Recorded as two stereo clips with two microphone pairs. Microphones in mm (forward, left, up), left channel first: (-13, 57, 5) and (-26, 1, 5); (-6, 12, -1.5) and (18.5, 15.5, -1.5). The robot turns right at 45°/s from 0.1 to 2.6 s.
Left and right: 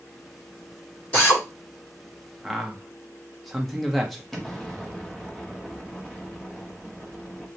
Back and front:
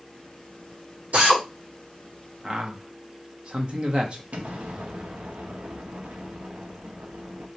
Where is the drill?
10° left, 2 m; by 1.4 s 25° left, 2 m.